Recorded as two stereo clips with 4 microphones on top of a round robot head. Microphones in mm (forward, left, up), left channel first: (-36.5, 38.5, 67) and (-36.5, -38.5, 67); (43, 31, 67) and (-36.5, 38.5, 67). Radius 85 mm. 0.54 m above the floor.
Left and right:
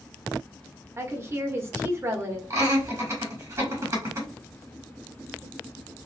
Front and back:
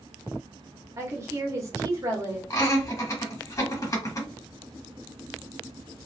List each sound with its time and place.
1.0 s a woman speaking: 140° right, 1.1 m
2.5 s laughter: 50° right, 1.6 m